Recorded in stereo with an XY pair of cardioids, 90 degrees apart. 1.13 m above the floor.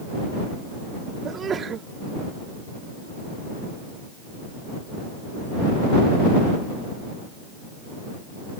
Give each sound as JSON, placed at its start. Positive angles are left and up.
{"t": 1.2, "sound": "a sneeze", "azimuth_deg": -55}